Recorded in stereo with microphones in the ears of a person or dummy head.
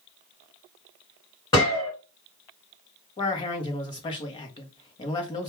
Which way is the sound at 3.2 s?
30° left (ahead or behind).